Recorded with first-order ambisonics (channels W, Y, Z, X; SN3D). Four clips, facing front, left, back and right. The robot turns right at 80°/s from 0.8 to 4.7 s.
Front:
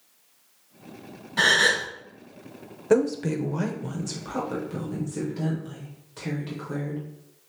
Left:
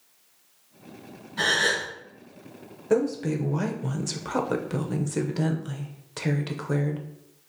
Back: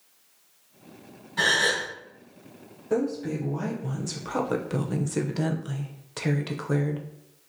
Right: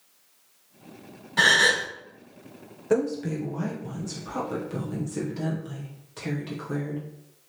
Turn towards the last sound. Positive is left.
turn(degrees=140)